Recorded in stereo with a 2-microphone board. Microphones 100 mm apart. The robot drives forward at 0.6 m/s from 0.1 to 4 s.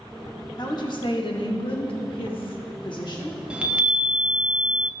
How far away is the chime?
About 0.7 m.